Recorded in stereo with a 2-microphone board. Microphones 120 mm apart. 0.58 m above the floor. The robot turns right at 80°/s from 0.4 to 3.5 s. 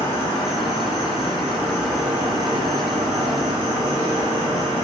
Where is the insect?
55° left, 1.0 m; by 4.8 s 60° right, 1.0 m.